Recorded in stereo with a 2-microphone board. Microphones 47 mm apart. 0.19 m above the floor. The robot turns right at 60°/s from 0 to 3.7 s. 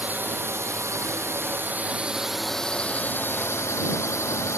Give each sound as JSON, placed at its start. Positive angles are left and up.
{"t": 0.0, "sound": "a drone", "azimuth_deg": -145}